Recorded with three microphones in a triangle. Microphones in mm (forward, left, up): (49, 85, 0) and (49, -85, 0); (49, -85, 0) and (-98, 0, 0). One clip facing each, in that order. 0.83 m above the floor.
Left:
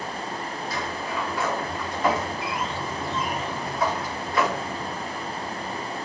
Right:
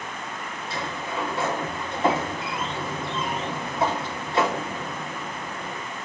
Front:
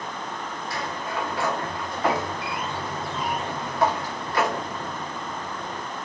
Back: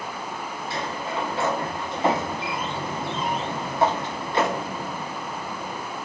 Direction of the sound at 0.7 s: 145° right.